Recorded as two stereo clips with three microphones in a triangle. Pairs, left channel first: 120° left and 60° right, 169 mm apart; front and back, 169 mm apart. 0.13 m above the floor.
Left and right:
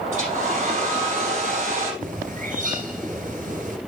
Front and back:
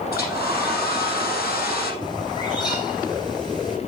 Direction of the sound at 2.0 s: 60° right.